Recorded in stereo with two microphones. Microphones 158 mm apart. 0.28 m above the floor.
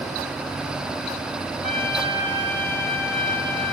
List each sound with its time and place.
1.6 s a trumpet: 70° right (ahead or behind), 7 m